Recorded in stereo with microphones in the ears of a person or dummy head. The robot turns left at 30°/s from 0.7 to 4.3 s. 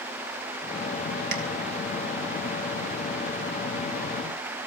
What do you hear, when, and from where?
1.3 s tapping: 60° right (ahead or behind), 0.9 m; by 1.4 s 65° right (ahead or behind), 0.9 m